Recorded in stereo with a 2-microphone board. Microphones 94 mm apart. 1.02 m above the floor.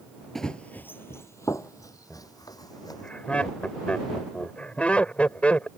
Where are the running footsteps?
5° left (ahead or behind); by 3.1 s 45° left (ahead or behind).